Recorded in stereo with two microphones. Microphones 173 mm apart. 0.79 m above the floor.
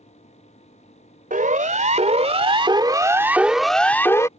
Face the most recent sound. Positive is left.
turn(degrees=20)  # may be behind; listen again after turning